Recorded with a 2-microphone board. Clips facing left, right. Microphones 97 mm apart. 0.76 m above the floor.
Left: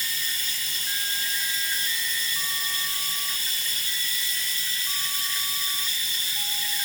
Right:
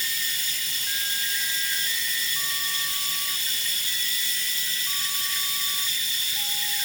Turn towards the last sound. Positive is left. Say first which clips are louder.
# even
turn(degrees=40)  # may be behind; listen again after turning